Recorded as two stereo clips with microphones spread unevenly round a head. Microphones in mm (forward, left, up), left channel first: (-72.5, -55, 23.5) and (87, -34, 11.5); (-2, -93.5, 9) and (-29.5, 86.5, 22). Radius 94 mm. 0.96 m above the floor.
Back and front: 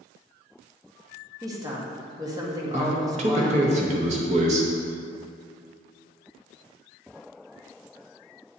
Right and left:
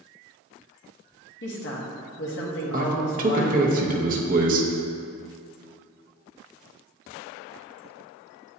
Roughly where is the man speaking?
Ahead left.